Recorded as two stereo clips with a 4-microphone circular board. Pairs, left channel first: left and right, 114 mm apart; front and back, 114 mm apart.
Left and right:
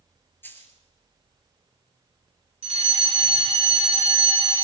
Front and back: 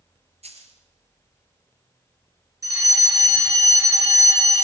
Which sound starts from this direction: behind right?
A fire alarm, at 2.6 s.